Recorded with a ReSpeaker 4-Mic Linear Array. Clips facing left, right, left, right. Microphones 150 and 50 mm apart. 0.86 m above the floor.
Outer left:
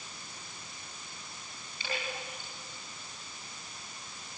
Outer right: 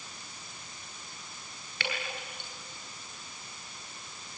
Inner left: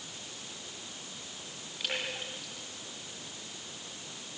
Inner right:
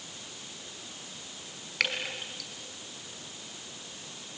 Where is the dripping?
80° right, 5.5 m.